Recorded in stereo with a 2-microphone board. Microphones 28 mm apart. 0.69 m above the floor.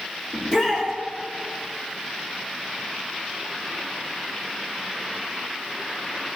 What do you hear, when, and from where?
0.3 s a shout: 25° left (ahead or behind), 1.2 m